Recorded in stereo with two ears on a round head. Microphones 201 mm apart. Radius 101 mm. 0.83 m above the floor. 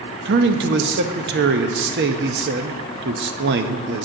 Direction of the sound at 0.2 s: 50° right (ahead or behind).